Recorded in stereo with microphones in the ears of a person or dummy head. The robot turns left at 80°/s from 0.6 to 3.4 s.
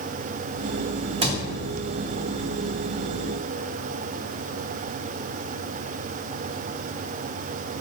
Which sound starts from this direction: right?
A cupboard door, at 1.2 s.